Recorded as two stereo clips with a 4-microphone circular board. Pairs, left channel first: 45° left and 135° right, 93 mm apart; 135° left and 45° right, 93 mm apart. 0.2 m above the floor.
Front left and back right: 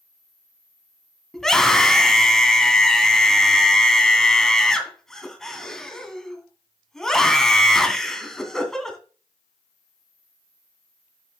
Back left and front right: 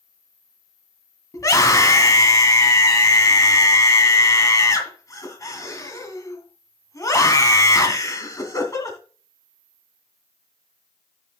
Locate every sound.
1.3 s a scream: 125° left, 1.9 m